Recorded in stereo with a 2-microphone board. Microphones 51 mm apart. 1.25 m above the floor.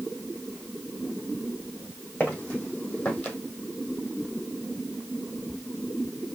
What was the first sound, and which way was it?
Footsteps, 25° left (ahead or behind).